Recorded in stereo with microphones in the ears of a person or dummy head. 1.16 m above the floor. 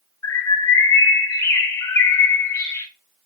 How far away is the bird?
About 1.5 m.